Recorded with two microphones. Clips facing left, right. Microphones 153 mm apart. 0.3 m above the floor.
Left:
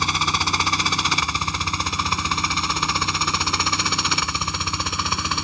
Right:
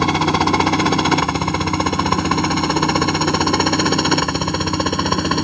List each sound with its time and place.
0.0 s a helicopter: 60° right (ahead or behind)